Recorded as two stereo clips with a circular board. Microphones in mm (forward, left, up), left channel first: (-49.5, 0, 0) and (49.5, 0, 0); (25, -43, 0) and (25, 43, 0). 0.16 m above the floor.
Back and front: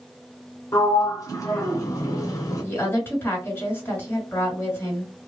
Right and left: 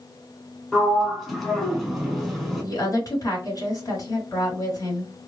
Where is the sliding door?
Straight behind, 1.1 m.